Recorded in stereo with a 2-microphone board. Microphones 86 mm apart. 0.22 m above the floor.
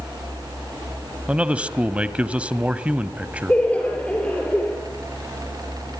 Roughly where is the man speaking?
Centre.